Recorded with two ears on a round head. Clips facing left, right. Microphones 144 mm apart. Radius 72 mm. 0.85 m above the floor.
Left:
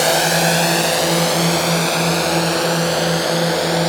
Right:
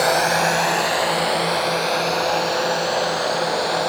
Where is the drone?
30° left (ahead or behind); by 3.9 s 70° left (ahead or behind).